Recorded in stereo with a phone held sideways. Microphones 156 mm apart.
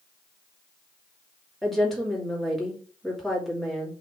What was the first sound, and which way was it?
A woman speaking, centre (ahead or behind).